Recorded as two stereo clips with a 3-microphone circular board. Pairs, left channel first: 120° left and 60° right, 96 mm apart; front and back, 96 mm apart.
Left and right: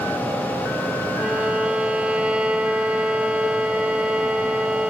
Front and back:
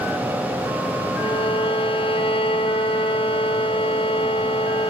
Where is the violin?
20° left, 0.7 m.